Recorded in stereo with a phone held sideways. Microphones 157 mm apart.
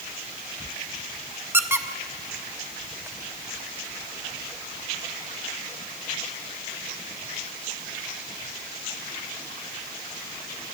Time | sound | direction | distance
1.5 | a squeak | 15° right (ahead or behind) | 0.9 m